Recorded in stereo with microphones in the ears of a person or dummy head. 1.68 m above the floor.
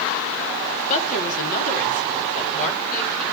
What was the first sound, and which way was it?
A woman speaking, 45° left (ahead or behind).